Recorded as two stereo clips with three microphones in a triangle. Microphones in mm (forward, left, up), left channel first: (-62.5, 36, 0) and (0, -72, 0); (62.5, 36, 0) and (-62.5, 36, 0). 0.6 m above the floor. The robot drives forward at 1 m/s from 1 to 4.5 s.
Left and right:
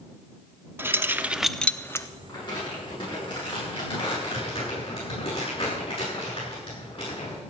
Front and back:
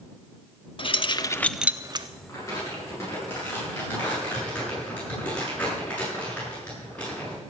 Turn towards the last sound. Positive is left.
turn(degrees=80)